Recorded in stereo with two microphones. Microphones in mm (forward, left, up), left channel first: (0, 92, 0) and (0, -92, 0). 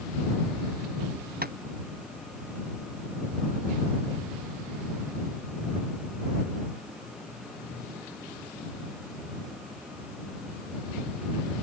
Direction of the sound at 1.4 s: 55° right (ahead or behind).